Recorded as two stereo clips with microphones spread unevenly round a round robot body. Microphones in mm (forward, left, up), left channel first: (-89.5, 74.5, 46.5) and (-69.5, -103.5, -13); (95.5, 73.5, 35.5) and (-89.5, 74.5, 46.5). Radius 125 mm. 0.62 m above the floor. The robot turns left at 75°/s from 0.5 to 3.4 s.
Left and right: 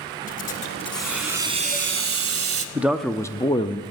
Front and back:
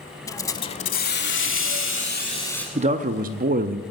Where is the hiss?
70° left, 0.8 m; by 2.6 s 90° right, 0.8 m.